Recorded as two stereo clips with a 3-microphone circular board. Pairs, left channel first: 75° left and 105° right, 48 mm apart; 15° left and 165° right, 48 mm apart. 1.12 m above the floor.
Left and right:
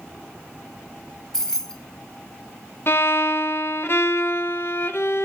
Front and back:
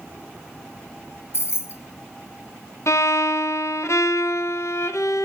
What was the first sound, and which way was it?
Keys jangling, 5° right.